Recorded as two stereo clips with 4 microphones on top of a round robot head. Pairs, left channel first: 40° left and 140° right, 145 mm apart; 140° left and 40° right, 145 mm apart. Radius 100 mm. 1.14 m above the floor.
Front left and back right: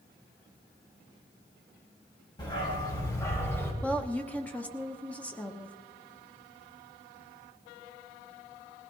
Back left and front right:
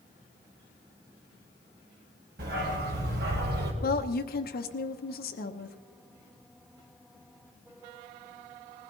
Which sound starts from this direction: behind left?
A woman speaking, at 3.8 s.